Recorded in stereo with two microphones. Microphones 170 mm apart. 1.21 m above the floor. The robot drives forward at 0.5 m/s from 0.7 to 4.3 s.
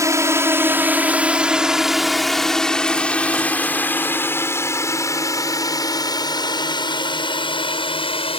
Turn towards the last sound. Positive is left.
turn(degrees=35)  # may be behind; listen again after turning